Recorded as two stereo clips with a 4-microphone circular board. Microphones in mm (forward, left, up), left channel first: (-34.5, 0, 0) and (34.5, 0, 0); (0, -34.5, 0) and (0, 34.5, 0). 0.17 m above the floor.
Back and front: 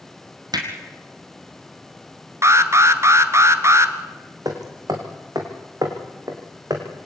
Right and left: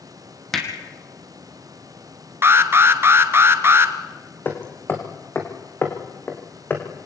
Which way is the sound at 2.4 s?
40° left.